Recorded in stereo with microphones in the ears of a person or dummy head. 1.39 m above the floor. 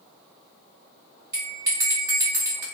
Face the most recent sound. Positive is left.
turn(degrees=-25)  # may be behind; listen again after turning